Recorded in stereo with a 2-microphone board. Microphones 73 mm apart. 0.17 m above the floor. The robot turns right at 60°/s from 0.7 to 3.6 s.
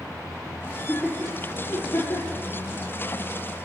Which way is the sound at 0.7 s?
10° right (ahead or behind).